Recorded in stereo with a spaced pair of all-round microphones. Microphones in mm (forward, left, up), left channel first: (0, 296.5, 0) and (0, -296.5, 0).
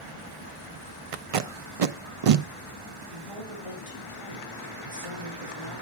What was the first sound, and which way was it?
Tape being pulled, 65° right (ahead or behind).